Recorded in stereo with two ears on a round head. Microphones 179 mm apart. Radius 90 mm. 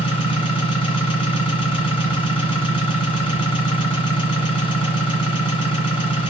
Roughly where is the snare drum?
No snare drum in this recording.